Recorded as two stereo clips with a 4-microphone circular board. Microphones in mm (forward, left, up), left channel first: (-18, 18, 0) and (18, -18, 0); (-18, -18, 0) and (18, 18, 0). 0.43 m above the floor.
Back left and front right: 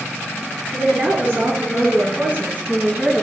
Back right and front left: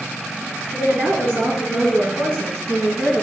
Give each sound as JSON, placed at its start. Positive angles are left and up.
{"t": 0.7, "sound": "a woman speaking", "azimuth_deg": -5, "distance_m": 4.5}